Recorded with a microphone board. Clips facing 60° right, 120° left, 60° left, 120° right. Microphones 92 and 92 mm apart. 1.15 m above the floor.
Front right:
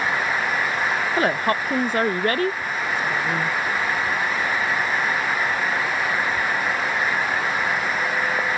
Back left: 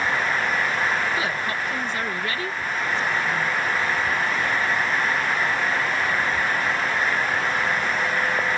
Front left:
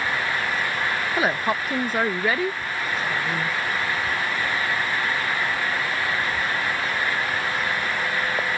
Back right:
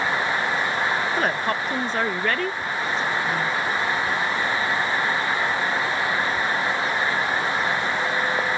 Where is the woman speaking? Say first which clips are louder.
Front right 5 dB, even; 20° right.